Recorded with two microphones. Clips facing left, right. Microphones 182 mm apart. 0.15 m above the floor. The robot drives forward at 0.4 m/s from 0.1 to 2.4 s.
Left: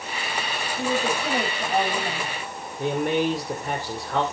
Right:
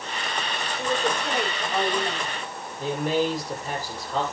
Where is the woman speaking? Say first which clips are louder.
Left 1 dB; 30° left (ahead or behind), 10 m.